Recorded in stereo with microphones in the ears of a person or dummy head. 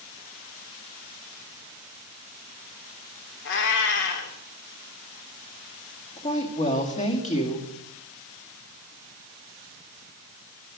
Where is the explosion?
No explosion in this recording.